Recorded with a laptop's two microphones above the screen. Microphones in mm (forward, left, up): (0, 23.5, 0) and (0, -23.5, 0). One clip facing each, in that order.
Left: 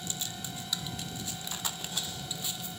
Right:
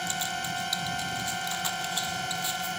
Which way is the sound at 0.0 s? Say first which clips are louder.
Right 9 dB; 65° right (ahead or behind).